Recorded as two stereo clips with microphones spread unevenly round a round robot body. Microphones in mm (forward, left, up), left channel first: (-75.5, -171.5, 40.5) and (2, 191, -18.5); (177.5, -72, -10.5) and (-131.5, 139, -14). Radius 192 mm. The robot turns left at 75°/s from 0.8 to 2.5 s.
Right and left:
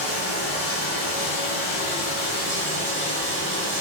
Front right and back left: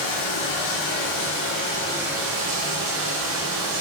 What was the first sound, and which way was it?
Running water, 45° right.